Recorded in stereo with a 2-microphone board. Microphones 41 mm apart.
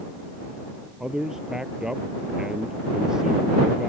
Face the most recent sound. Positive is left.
turn(degrees=-20)  # may be behind; listen again after turning